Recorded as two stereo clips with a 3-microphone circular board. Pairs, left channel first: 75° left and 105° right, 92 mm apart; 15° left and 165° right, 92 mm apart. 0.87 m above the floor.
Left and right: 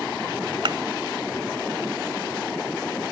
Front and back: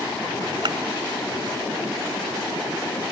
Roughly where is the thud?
Behind right.